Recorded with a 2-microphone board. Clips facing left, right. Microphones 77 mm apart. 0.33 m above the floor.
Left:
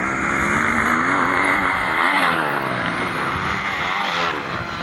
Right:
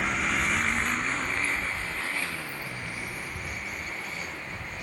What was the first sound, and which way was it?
A motorcycle, 35° left (ahead or behind).